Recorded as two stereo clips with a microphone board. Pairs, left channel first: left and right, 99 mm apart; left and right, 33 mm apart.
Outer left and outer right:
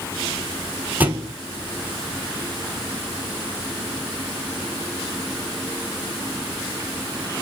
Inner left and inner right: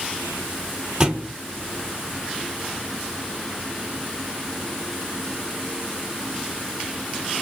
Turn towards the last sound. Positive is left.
turn(degrees=-20)  # may be behind; listen again after turning